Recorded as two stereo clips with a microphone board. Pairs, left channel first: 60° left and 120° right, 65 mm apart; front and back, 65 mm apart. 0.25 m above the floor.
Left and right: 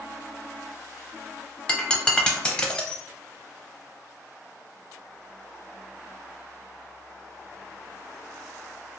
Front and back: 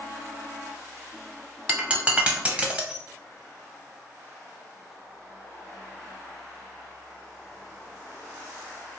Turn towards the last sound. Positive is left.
turn(degrees=125)